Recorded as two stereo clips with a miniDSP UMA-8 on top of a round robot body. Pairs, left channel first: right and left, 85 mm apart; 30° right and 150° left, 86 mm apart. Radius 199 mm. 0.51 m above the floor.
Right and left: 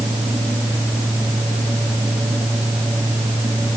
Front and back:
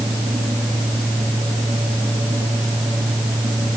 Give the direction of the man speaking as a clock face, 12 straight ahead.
I don't hear a man speaking.